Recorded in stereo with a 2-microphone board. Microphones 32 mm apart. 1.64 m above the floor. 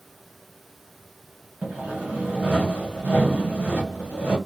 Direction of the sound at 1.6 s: 50° right (ahead or behind).